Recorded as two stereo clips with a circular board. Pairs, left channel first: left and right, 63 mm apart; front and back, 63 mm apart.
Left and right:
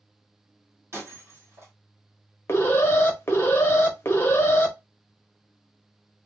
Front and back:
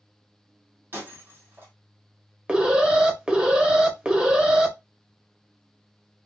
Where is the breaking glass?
135° right, 2 m.